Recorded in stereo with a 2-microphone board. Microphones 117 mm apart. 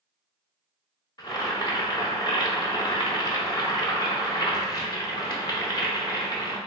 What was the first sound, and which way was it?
Boiling, 35° left (ahead or behind).